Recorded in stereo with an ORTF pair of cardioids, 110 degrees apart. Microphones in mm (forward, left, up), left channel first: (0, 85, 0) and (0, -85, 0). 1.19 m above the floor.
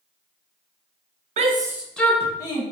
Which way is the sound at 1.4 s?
45° right.